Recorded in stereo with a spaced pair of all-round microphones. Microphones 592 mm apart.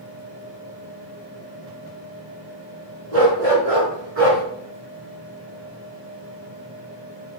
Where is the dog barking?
70° right (ahead or behind), 4.5 m; by 4.4 s 60° right (ahead or behind), 4 m.